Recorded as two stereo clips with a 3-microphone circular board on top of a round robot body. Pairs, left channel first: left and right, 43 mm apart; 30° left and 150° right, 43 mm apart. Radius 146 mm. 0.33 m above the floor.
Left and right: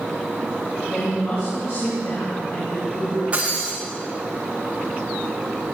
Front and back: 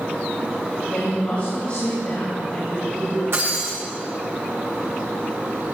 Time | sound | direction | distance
0.9 | a woman speaking | 85° left | 5.5 m
3.3 | breaking glass | 155° right | 6.5 m